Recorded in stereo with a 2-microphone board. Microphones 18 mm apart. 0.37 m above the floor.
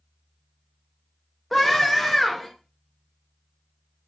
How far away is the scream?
About 0.9 m.